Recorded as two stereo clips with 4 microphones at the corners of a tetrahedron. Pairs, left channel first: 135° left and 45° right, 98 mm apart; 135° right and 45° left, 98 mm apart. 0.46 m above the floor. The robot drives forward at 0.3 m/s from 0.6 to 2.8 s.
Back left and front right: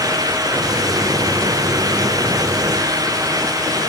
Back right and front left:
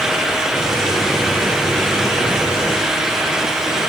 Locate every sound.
Only background noise.